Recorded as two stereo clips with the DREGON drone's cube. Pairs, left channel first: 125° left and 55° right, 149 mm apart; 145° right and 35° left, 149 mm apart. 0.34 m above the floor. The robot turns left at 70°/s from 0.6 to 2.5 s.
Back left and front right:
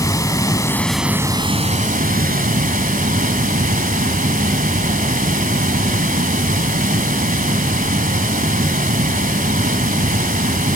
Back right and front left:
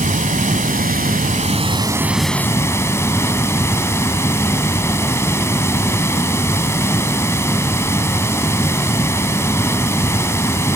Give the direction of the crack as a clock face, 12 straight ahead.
No crack in this recording.